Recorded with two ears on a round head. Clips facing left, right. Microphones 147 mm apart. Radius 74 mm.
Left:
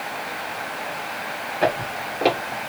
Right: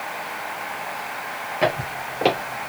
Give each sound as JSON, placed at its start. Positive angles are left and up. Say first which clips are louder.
{"t": 1.6, "sound": "footsteps", "louder": "left 1 dB", "side_deg": -15, "distance_m": 1.8}